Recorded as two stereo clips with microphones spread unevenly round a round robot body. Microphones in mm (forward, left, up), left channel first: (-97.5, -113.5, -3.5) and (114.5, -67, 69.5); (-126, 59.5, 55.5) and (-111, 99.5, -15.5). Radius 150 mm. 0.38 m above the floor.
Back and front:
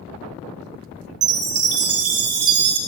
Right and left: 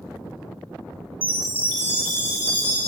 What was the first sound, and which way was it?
A chime, 15° left.